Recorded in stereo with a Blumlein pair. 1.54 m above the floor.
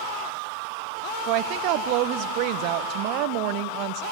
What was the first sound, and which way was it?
A woman speaking, 45° right.